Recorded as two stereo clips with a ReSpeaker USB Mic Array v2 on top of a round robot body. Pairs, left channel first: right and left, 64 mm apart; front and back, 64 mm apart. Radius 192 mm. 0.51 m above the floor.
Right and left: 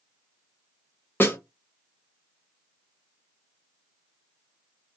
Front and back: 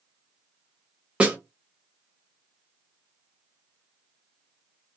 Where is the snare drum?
115° right, 1.5 m.